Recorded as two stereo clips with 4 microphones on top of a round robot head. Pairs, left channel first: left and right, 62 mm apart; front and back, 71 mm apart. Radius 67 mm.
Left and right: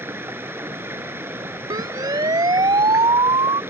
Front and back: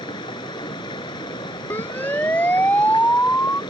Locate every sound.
0.0 s running water: 35° right
1.7 s a siren: 70° right; by 3.6 s 75° right